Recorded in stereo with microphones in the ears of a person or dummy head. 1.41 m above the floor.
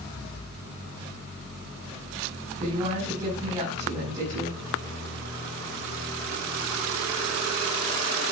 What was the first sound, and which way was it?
A woman speaking, 20° right (ahead or behind).